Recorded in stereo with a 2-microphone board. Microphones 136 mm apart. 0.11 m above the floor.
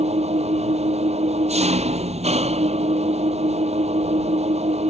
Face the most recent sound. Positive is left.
turn(degrees=-50)  # may be behind; listen again after turning